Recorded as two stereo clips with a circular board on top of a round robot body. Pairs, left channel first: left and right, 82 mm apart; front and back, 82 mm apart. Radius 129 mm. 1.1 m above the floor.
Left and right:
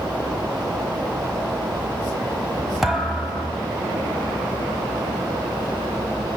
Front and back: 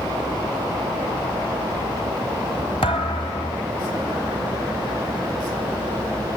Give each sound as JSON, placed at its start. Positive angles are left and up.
{"t": 2.8, "sound": "a thud", "azimuth_deg": -5, "distance_m": 1.0}